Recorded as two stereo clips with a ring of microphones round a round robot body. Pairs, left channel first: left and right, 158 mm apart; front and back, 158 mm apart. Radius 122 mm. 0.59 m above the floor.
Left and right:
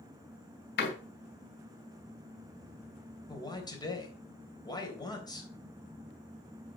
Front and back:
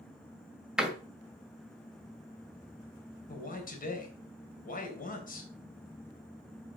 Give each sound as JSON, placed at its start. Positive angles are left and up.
{"t": 0.8, "sound": "a door slam", "azimuth_deg": 95, "distance_m": 2.0}
{"t": 3.3, "sound": "a man speaking", "azimuth_deg": 25, "distance_m": 3.5}